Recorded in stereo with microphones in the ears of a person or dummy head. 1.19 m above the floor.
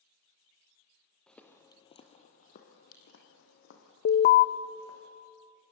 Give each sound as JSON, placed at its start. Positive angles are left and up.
{"t": 1.3, "sound": "footsteps", "side_deg": 5, "distance_m": 1.9}
{"t": 4.0, "sound": "an alarm", "side_deg": 45, "distance_m": 0.7}